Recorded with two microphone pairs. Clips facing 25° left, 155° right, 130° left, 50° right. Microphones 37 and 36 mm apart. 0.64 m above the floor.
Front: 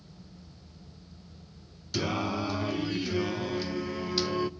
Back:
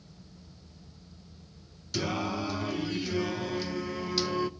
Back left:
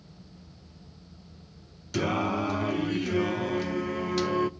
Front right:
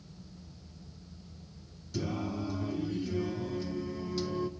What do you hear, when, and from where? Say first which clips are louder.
1.9 s singing: front 1 dB, back left 8 dB; 110° left, 0.5 m